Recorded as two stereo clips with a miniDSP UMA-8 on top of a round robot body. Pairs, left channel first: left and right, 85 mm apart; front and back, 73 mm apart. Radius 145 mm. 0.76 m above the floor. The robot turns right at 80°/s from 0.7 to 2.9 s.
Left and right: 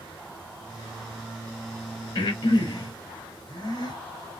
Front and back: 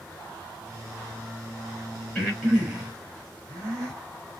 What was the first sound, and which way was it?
Breathing, 70° left.